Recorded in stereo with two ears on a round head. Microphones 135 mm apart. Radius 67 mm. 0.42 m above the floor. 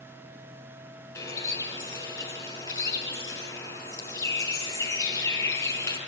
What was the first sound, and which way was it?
A bird, 20° left (ahead or behind).